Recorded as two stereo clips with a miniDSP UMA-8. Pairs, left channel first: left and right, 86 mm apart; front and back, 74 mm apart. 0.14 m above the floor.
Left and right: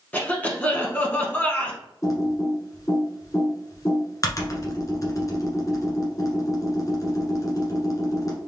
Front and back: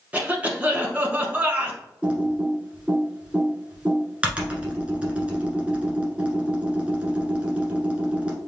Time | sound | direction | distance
0.1 | a cough | 140° left | 1.1 m
2.0 | typing on a keyboard | 115° left | 1.2 m